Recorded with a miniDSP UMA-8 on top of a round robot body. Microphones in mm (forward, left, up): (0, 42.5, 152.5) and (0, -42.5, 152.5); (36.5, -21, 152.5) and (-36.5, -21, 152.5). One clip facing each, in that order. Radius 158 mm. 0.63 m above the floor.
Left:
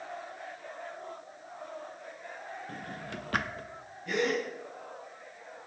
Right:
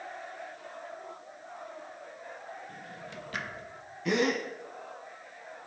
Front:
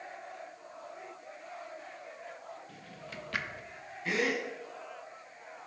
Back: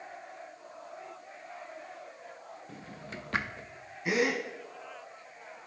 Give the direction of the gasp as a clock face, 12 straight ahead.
3 o'clock.